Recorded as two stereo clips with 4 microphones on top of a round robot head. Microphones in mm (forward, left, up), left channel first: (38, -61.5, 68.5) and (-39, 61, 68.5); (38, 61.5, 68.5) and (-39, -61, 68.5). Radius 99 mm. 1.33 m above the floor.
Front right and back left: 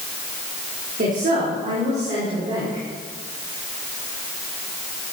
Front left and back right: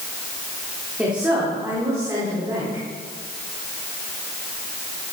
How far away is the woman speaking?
About 3.5 m.